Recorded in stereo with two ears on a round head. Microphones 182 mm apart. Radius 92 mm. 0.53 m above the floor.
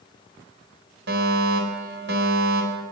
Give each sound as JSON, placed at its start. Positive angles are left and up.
{"t": 1.1, "sound": "a fire alarm", "side_deg": -60, "distance_m": 4.0}